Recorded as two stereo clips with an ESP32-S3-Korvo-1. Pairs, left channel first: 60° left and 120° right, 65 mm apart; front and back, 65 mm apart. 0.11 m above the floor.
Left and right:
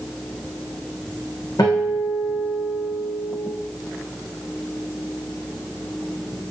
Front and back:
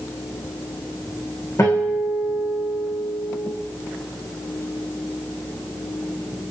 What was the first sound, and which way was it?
A guitar, 40° left.